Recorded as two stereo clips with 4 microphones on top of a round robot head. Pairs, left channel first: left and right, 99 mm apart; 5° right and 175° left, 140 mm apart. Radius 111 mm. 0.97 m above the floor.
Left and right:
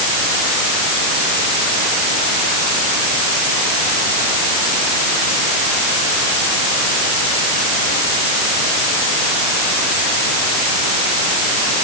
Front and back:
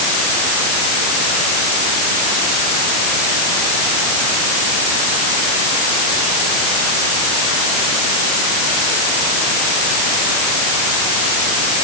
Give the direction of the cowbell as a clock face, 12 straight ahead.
I don't hear a cowbell.